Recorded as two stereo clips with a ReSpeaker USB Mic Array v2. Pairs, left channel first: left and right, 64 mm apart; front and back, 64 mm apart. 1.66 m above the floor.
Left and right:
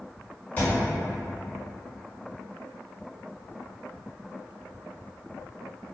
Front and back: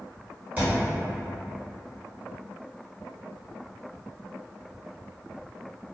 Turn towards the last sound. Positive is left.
turn(degrees=135)